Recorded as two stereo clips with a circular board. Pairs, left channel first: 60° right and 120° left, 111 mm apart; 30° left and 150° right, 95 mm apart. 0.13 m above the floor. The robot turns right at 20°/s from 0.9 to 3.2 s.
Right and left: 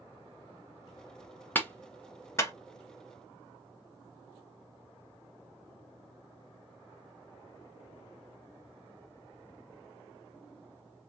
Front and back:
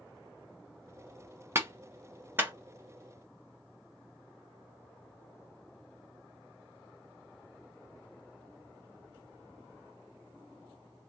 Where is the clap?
115° right, 1.5 m; by 2.5 s 95° right, 1.5 m.